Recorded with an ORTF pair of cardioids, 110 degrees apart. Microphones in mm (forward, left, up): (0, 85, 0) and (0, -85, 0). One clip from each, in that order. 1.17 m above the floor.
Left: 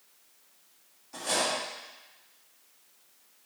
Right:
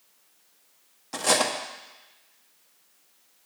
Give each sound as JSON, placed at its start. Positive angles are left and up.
{"t": 1.1, "sound": "cutlery clinking", "azimuth_deg": -70, "distance_m": 1.2}